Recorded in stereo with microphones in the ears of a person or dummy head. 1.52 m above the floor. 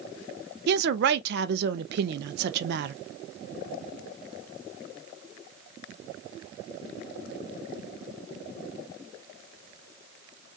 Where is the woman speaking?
60° right (ahead or behind), 0.5 m.